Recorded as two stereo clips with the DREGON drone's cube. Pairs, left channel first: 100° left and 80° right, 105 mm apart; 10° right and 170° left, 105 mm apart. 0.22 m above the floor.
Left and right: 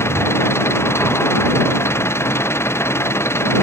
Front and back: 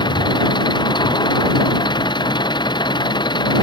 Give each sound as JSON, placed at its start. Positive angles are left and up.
{"t": 0.0, "sound": "an engine running", "azimuth_deg": 35}